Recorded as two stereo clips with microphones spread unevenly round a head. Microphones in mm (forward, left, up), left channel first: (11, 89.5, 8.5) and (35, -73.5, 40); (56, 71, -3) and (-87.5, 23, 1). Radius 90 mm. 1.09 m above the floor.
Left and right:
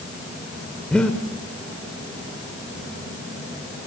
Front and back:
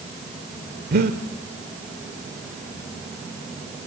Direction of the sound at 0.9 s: 170° right.